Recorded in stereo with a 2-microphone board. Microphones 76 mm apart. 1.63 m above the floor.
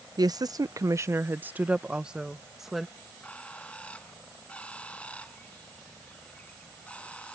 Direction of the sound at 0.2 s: 55° right (ahead or behind).